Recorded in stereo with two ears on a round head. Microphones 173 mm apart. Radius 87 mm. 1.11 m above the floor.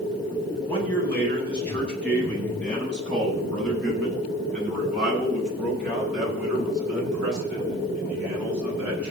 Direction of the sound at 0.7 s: 10° left (ahead or behind).